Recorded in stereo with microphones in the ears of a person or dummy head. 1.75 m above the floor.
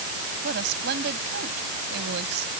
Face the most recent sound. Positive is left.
turn(degrees=-55)  # may be behind; listen again after turning